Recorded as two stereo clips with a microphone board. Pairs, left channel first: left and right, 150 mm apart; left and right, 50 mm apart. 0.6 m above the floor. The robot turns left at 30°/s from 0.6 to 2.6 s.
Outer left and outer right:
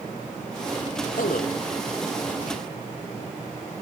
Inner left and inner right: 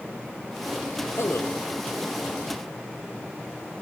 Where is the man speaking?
75° left (ahead or behind), 2 m.